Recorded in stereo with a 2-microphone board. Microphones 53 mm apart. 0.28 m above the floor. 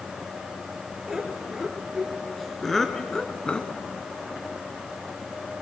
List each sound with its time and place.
1.1 s laughter: 10° right (ahead or behind), 4.5 m; by 3.8 s 30° left (ahead or behind), 2 m